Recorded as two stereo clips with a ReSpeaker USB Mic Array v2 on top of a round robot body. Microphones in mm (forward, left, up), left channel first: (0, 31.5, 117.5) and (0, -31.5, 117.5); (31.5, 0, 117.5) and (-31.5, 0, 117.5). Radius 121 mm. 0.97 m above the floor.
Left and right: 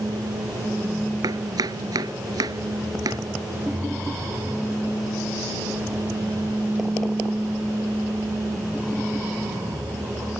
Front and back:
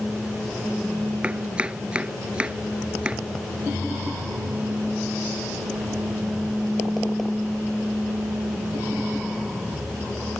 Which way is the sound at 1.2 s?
110° right.